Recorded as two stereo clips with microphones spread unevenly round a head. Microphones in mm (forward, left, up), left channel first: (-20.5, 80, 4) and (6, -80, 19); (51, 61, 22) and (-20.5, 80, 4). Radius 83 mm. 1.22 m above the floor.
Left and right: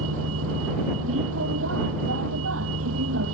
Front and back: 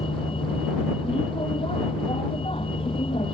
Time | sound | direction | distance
0.0 | a vehicle | 70° right | ?